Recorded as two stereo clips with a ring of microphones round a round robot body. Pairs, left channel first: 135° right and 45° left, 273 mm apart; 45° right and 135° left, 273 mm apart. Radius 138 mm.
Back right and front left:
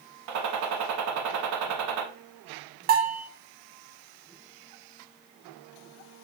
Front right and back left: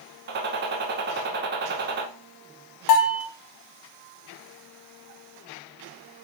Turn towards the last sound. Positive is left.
turn(degrees=-15)